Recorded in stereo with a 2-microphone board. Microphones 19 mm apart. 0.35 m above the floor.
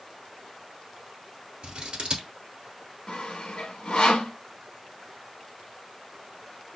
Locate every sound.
1.6 s scissors: 60° right (ahead or behind), 1.4 m
3.1 s sawing: 75° left (ahead or behind), 0.8 m